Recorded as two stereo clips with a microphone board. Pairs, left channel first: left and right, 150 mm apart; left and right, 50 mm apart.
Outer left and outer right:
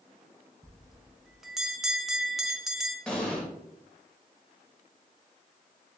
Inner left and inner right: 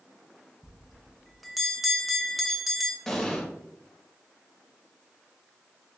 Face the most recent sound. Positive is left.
turn(degrees=5)  # may be behind; listen again after turning